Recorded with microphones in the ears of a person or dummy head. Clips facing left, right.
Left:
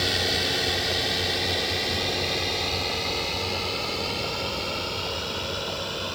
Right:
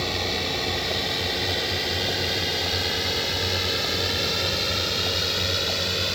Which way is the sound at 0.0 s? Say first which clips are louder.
Even; 10° left (ahead or behind).